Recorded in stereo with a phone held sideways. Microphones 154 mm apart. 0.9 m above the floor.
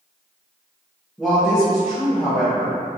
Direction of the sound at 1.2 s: Centre (ahead or behind).